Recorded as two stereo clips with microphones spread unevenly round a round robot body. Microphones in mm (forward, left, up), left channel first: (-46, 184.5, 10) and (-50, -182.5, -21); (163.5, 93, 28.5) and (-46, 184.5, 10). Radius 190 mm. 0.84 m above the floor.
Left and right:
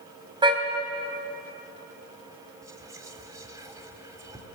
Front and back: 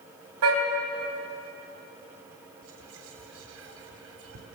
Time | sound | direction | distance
0.4 | a car horn | 170° right | 3 m
2.6 | whispering | 170° right | 3 m